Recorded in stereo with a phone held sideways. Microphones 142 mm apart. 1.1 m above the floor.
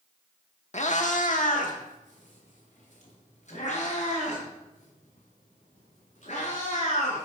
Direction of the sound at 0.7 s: 55° left (ahead or behind).